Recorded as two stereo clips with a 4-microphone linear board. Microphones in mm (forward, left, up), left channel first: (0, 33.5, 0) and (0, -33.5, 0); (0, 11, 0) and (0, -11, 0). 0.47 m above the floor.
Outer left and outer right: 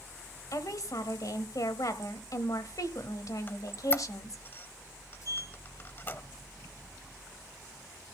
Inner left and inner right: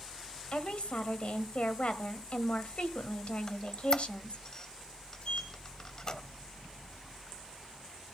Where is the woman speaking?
60° left (ahead or behind), 1.8 m.